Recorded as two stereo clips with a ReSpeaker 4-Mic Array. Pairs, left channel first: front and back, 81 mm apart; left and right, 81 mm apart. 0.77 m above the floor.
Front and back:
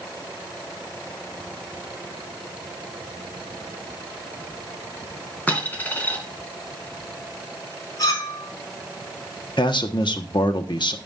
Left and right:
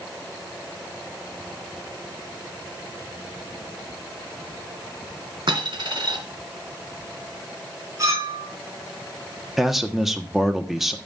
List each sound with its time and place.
5.5 s a dropped coin: 70° right, 2.5 m
8.0 s a clink: 40° right, 5.5 m
9.6 s a man speaking: 5° right, 1.0 m